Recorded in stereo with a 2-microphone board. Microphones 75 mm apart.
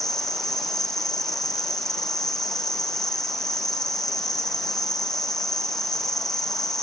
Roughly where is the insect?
Centre.